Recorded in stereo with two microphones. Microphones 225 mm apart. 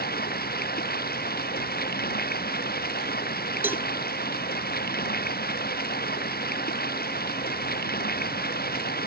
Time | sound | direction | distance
0.0 | running water | 45° left (ahead or behind) | ?
3.6 | a cowbell | 10° right (ahead or behind) | ?